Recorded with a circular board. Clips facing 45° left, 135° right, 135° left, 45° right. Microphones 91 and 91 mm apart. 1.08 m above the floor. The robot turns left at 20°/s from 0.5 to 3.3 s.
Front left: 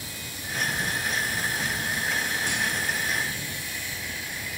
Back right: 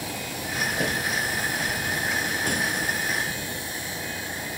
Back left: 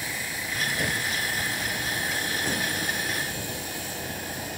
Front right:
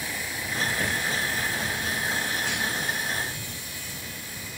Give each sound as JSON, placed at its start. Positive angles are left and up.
{"t": 0.0, "sound": "a vehicle", "azimuth_deg": -135}